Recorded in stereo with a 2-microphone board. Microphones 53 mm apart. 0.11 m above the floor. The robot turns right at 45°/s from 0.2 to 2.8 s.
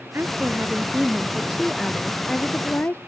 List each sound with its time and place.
0.1 s a woman speaking: 75° right; by 3.0 s 40° left